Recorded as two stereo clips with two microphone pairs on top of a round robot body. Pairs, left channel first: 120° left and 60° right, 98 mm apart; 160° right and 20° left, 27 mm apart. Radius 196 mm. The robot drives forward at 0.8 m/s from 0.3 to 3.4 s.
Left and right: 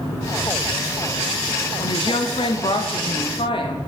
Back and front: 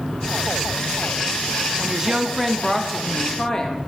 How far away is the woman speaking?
About 1.2 m.